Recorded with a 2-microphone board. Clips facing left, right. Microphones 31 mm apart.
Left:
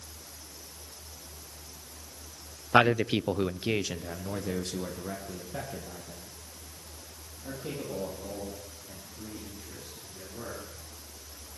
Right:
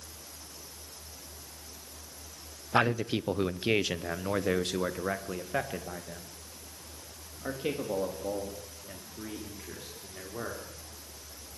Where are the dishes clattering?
I don't hear dishes clattering.